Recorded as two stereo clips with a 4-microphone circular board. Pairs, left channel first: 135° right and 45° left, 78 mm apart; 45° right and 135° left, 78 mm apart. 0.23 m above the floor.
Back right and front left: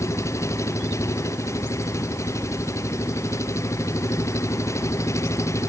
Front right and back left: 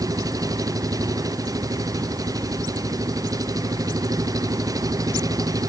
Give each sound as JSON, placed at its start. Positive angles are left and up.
{"t": 0.0, "sound": "an engine running", "azimuth_deg": 175}